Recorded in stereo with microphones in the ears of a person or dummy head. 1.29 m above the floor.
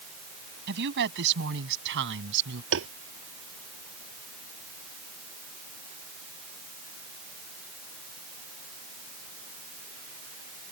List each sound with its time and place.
0.7 s a woman speaking: 60° right (ahead or behind)
2.7 s tapping: 70° right (ahead or behind)